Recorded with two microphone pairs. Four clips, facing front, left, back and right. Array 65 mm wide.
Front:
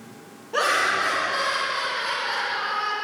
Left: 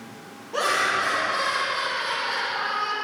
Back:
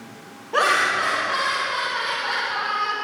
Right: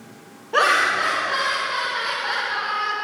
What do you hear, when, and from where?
0.5 s laughter: 135° right, 3 m; by 3.0 s 165° right, 3 m